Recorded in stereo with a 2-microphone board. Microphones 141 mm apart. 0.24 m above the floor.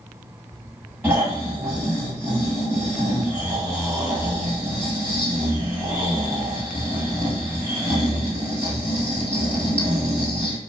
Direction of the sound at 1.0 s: 15° right (ahead or behind).